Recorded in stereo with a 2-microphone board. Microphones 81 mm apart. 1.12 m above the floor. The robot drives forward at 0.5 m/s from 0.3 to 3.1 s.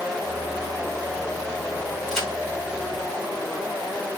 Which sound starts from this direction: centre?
A crack, at 2.1 s.